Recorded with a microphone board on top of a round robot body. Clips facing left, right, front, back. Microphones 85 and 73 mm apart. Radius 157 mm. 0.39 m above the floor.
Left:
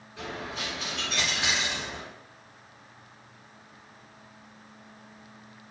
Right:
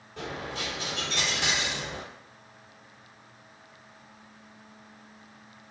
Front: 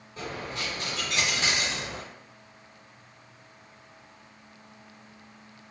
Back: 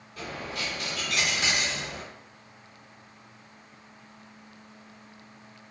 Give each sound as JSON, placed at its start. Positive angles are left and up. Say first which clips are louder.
{"t": 0.2, "sound": "a dropped coin", "louder": "right 1 dB, even", "azimuth_deg": -60, "distance_m": 0.6}